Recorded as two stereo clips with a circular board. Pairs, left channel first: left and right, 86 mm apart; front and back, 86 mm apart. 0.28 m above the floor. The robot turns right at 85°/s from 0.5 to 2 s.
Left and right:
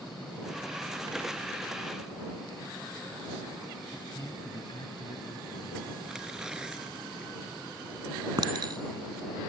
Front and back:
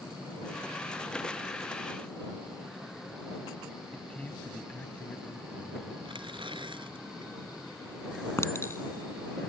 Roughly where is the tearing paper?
Behind.